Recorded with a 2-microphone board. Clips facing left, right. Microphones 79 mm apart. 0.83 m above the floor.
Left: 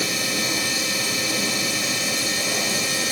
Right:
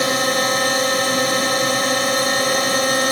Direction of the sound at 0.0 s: 50° right (ahead or behind).